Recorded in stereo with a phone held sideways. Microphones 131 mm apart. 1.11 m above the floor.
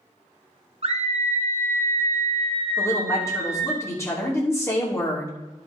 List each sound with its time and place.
0.8 s a scream: 50° right (ahead or behind), 1.3 m; by 3.8 s 5° right (ahead or behind), 1.4 m
2.8 s a woman speaking: 20° left (ahead or behind), 2.5 m